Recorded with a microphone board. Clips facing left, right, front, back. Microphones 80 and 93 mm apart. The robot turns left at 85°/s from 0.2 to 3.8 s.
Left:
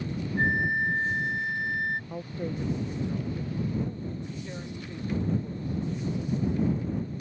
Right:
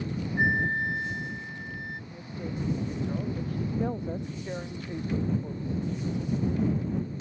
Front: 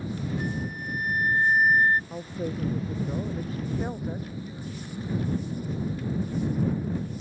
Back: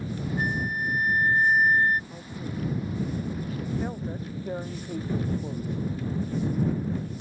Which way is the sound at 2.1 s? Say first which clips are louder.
Left 3 dB, front 4 dB; 65° left.